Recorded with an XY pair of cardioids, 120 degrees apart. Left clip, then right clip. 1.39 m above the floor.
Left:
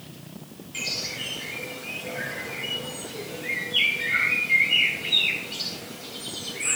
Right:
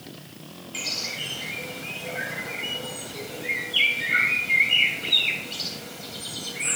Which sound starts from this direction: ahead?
A bird, at 0.7 s.